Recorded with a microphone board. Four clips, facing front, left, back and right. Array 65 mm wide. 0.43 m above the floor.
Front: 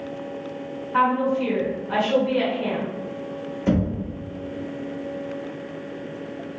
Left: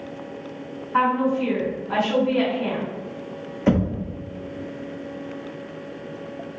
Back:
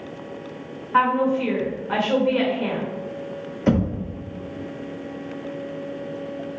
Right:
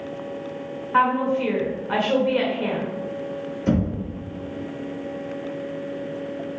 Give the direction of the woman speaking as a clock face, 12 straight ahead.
4 o'clock.